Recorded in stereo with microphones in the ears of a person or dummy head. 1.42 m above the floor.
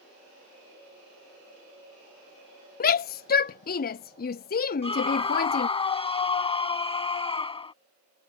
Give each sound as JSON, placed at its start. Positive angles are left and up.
{"t": 2.8, "sound": "a shout", "side_deg": 40}
{"t": 4.8, "sound": "a scream", "side_deg": 30}